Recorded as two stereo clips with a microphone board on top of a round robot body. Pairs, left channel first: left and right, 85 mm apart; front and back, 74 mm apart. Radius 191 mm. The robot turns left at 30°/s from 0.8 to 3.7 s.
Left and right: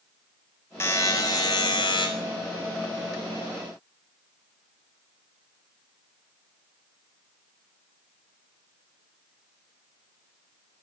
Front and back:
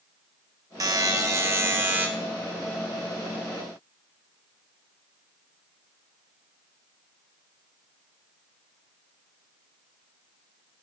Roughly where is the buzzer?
Behind left.